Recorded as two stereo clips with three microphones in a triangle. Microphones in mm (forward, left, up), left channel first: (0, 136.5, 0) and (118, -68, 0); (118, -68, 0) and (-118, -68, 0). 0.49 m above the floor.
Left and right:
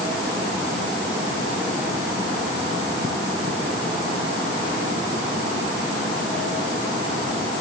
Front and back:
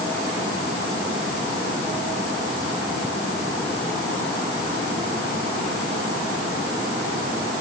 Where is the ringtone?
No ringtone in this recording.